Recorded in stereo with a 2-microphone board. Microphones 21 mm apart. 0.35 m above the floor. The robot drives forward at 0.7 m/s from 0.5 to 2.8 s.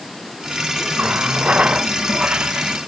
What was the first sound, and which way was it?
A running tap, 80° right.